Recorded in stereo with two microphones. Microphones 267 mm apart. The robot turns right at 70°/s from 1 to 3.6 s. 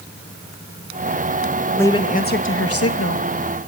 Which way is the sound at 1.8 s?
5° left.